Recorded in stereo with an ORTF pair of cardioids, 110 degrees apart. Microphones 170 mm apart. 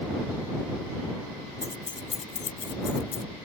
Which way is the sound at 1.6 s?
15° left.